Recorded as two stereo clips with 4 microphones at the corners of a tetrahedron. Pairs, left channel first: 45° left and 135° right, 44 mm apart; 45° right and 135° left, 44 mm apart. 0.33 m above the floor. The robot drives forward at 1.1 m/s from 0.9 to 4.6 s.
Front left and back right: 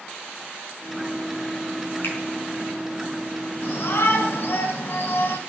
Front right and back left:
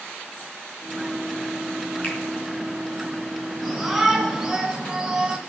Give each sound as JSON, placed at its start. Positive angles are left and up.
{"t": 2.0, "sound": "a finger snap", "azimuth_deg": 10, "distance_m": 4.0}
{"t": 3.6, "sound": "a shout", "azimuth_deg": 40, "distance_m": 3.5}